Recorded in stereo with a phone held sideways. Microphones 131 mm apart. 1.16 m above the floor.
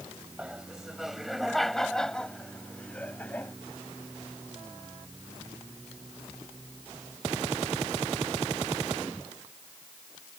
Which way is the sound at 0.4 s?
5° right (ahead or behind).